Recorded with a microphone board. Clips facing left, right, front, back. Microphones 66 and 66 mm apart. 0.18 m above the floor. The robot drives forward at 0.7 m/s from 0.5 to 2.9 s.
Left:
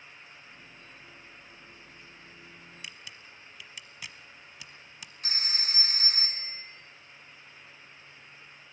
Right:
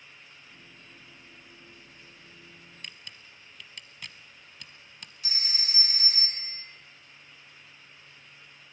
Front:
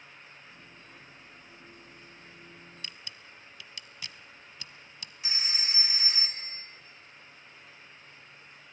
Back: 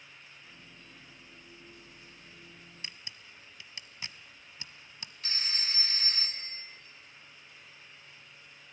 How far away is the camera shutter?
About 0.8 m.